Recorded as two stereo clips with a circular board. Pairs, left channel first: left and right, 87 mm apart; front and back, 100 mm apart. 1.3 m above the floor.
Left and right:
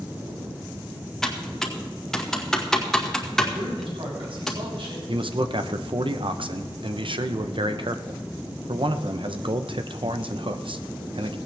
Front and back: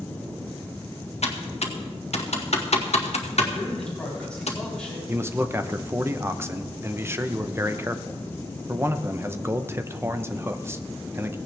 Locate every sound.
1.2 s typing on a keyboard: 5° left, 1.6 m
3.5 s a man speaking: 80° right, 7 m
5.1 s a man speaking: 115° right, 0.9 m